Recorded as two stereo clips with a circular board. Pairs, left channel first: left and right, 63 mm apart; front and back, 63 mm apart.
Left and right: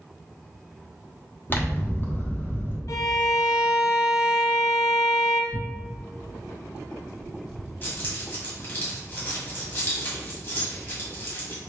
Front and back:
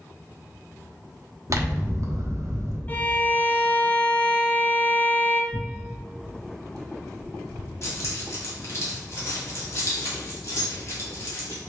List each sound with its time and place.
1.5 s scissors: 145° left, 0.8 m
2.9 s a violin: 60° left, 0.5 m
5.5 s tearing paper: 165° right, 1.5 m
7.8 s keys jangling: 40° left, 1.6 m